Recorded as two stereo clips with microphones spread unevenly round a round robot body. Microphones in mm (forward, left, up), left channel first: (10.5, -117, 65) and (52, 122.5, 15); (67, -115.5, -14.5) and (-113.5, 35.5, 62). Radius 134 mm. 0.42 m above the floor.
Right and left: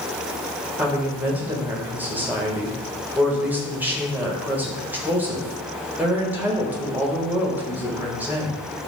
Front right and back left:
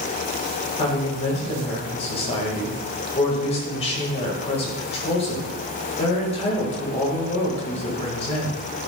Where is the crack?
No crack in this recording.